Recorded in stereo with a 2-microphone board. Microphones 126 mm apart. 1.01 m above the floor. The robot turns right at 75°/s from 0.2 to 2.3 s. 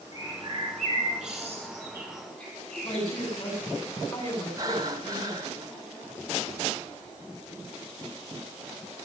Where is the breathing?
30° right (ahead or behind), 1.6 m.